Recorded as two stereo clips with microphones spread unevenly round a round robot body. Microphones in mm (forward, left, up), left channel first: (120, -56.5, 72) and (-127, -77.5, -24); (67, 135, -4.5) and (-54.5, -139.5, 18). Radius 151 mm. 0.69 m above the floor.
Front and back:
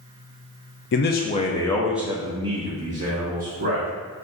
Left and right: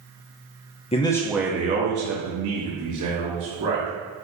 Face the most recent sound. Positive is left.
turn(degrees=-140)